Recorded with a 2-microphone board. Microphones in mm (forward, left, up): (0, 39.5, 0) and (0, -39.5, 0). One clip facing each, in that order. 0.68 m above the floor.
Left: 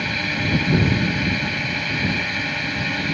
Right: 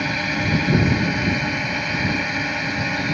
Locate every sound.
0.0 s a drone: 15° right (ahead or behind)